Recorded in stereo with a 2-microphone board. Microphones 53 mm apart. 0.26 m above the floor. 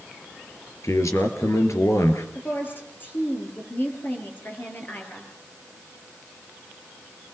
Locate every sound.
0.8 s a man speaking: 75° left (ahead or behind), 4 m; by 2.2 s 65° left (ahead or behind), 4 m
2.4 s a woman speaking: 40° left (ahead or behind), 6.5 m